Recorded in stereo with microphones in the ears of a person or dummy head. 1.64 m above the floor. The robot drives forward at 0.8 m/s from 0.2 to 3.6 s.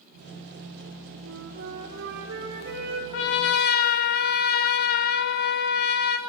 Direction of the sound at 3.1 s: 60° left (ahead or behind).